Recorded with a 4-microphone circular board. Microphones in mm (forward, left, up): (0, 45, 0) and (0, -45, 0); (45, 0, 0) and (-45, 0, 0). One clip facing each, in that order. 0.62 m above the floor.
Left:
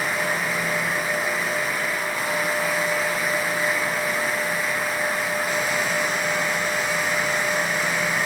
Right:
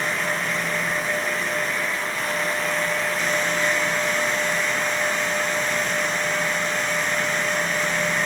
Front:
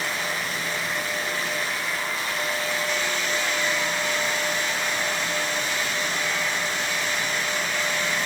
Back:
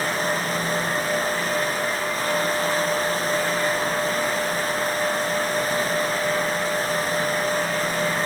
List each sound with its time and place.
Only background noise.